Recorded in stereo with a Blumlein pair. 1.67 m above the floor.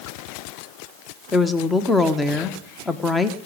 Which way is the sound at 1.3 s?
10° left.